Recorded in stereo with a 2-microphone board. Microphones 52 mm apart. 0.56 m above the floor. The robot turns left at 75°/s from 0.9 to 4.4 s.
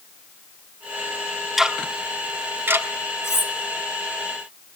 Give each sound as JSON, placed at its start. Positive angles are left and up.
{"t": 1.6, "sound": "ticking", "side_deg": -5, "distance_m": 1.3}
{"t": 3.2, "sound": "cutlery clinking", "side_deg": 65, "distance_m": 2.0}